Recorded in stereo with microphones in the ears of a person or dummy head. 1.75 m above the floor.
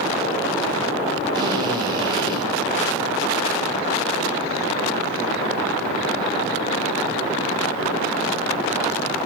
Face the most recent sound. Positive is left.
turn(degrees=-25)  # may be behind; listen again after turning